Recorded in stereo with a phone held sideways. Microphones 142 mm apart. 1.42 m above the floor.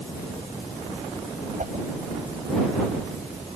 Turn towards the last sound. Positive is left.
turn(degrees=-65)  # may be behind; listen again after turning